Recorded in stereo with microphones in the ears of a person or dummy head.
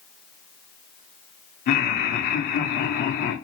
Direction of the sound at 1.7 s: 55° left (ahead or behind).